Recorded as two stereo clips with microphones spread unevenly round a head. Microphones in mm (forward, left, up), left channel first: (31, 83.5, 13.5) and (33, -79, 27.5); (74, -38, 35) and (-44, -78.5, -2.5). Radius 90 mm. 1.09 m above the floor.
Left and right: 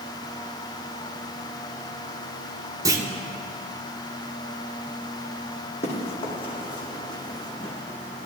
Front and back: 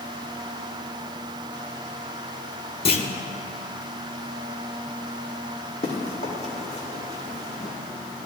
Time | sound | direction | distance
2.9 | a clunk | 20° right | 1.0 m
5.8 | running footsteps | 40° left | 2.5 m